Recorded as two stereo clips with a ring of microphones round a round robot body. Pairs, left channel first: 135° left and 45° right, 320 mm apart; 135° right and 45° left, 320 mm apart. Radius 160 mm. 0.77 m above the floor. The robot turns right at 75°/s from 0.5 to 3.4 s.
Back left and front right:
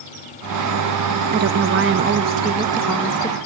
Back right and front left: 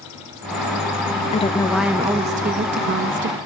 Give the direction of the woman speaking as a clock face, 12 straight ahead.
3 o'clock.